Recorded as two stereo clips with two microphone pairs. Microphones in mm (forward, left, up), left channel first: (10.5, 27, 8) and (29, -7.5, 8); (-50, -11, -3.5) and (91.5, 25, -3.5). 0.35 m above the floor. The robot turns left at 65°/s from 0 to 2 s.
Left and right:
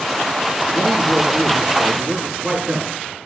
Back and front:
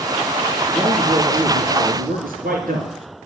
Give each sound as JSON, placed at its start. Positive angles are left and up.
{"t": 0.7, "sound": "a man speaking", "azimuth_deg": 90, "distance_m": 4.5}